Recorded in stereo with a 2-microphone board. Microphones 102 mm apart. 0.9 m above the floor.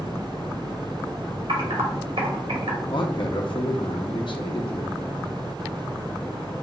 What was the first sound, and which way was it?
Typing on a keyboard, 80° right.